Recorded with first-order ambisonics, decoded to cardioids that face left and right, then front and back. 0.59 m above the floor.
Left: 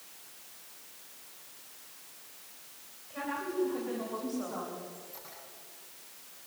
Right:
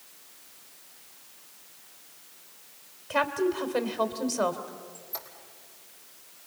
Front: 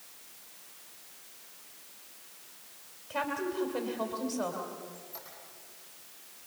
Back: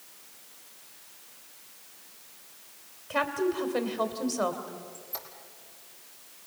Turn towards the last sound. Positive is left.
turn(degrees=-145)